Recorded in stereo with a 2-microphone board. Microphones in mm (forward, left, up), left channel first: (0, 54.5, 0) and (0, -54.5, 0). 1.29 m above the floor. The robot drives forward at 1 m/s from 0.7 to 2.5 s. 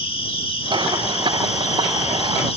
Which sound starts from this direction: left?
An insect, at 0.0 s.